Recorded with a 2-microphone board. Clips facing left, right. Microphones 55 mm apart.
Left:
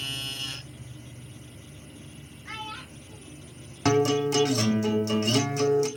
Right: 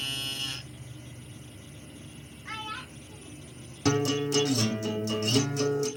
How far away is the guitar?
About 0.7 m.